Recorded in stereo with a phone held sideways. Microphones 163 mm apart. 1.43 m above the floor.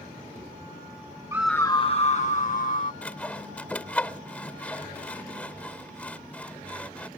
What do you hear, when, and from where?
1.3 s a scream: 20° right (ahead or behind); by 2.9 s 60° left (ahead or behind)
3.0 s sawing: 10° left (ahead or behind)